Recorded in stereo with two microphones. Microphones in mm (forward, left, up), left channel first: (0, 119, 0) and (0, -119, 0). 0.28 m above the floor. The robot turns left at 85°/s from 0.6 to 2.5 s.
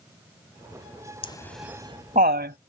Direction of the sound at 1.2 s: 25° left (ahead or behind).